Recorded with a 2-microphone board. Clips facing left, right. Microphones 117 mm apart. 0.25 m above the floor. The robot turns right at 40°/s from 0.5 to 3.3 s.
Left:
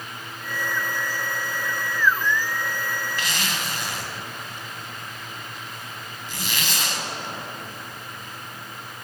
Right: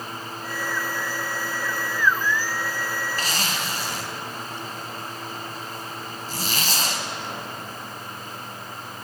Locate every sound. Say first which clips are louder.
3.2 s a zipper: right 1 dB; 40° right (ahead or behind), 0.9 m; by 9.1 s 35° right (ahead or behind), 0.9 m